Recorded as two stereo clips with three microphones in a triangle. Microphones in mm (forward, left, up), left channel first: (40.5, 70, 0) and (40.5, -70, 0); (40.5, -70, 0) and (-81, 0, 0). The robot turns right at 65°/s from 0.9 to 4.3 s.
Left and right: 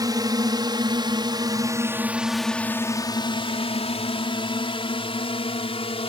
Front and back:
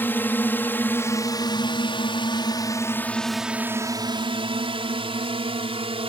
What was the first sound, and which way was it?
A drone, 85° right.